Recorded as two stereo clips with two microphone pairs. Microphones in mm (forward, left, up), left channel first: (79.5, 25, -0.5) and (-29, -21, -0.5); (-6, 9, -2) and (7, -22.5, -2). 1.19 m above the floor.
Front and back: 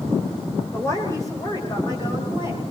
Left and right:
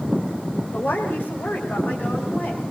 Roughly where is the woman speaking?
Left.